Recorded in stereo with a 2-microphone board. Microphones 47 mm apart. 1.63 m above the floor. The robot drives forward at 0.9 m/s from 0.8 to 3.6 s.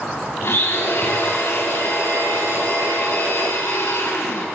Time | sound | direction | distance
0.4 | a blender | 65° left (ahead or behind) | 6.5 m